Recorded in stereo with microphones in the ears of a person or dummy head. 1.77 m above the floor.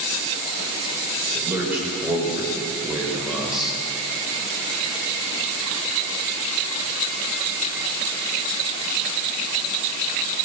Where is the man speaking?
10° right (ahead or behind), 7 m; by 3.8 s centre (ahead or behind), 7.5 m.